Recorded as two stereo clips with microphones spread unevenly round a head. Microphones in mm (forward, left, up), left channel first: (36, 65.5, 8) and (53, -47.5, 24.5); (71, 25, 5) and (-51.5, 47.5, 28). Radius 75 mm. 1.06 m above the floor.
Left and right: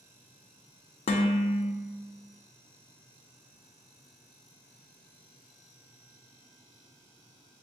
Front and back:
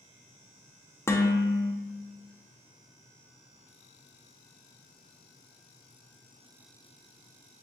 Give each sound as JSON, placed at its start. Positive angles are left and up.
{"t": 1.1, "sound": "dishes clattering", "azimuth_deg": 60, "distance_m": 0.5}